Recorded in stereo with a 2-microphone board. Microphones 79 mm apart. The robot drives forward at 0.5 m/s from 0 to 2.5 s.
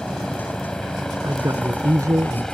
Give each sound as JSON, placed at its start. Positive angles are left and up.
{"t": 0.0, "sound": "a helicopter", "side_deg": 5}
{"t": 1.2, "sound": "a man speaking", "side_deg": -45}